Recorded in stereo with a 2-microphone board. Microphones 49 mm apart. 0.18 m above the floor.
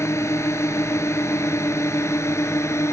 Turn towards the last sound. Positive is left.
turn(degrees=60)  # may be behind; listen again after turning